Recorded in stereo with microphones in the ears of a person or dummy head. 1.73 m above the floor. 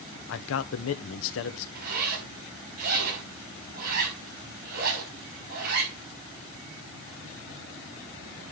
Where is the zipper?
50° right (ahead or behind), 6 m.